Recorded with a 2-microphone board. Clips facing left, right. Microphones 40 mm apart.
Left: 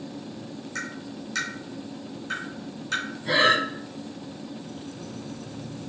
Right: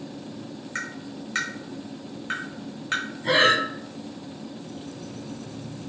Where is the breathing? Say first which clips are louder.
Right 1 dB; 70° right (ahead or behind), 1.4 m.